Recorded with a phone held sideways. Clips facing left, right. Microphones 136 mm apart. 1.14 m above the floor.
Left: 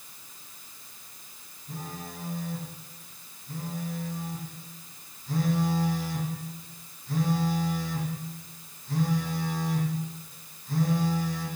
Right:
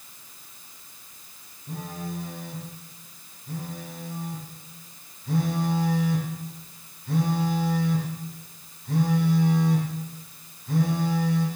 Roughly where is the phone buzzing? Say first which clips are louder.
Right 5 dB; right.